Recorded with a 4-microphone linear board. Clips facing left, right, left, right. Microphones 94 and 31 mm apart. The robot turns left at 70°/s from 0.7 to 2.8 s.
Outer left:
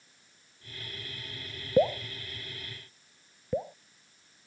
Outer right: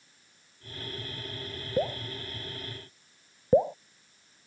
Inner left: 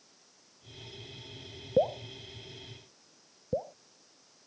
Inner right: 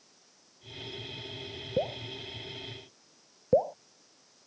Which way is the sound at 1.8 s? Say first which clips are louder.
Outer left 5 dB, inner left 5 dB; 20° left (ahead or behind).